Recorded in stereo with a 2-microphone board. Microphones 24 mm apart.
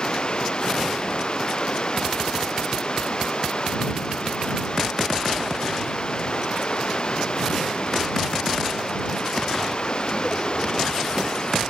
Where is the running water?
40° left (ahead or behind).